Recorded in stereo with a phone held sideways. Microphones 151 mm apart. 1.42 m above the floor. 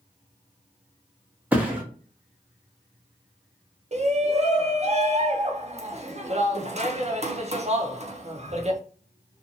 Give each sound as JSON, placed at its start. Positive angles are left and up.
{"t": 1.5, "sound": "a thud", "side_deg": -10, "distance_m": 1.0}
{"t": 3.9, "sound": "a shout", "side_deg": -45, "distance_m": 0.7}